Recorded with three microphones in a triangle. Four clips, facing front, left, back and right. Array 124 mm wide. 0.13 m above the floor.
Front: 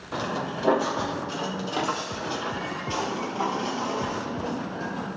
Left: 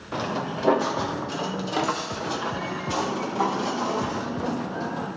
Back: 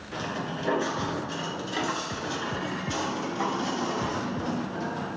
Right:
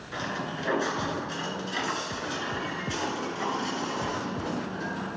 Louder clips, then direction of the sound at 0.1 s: Left 5 dB, front 3 dB; 55° left.